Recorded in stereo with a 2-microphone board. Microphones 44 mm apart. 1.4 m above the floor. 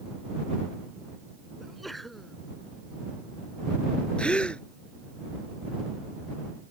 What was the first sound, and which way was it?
A sneeze, centre (ahead or behind).